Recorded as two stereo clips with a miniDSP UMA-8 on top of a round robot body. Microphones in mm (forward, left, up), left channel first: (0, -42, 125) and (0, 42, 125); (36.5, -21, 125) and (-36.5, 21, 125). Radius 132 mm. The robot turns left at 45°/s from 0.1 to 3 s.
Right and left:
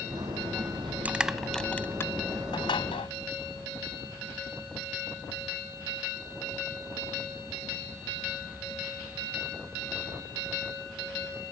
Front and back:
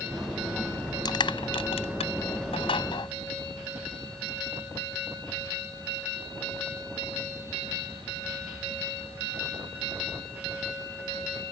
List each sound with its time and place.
1.1 s crushing: 15° left; by 3.1 s 70° right